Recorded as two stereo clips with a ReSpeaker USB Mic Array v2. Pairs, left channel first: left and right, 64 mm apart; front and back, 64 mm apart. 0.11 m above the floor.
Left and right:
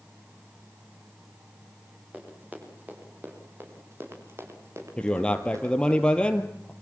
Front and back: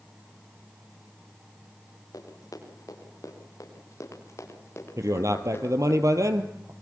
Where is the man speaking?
165° left, 2.5 m.